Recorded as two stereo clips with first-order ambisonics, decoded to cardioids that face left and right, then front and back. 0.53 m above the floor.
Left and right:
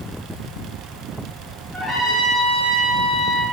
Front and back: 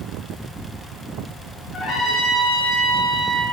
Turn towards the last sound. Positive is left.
turn(degrees=15)